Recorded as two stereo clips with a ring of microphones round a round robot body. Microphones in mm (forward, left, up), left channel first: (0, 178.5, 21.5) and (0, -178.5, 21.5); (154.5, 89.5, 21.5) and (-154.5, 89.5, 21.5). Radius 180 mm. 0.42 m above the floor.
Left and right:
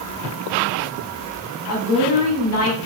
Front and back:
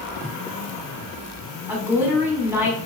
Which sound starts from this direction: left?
A woman speaking, at 1.7 s.